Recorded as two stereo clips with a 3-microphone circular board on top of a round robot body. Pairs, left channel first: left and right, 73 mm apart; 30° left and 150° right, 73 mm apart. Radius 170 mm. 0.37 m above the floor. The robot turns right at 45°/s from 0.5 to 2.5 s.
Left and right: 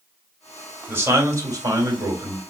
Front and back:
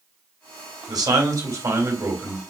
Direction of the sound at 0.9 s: 150° right.